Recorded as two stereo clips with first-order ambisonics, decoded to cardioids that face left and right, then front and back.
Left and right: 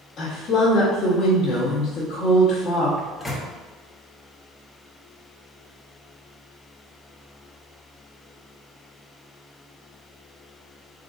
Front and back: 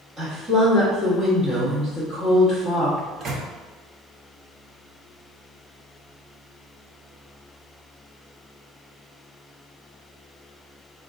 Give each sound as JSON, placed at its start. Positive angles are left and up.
{"t": 0.2, "sound": "a woman speaking", "azimuth_deg": 120, "distance_m": 1.3}
{"t": 3.0, "sound": "a microwave", "azimuth_deg": 160, "distance_m": 0.6}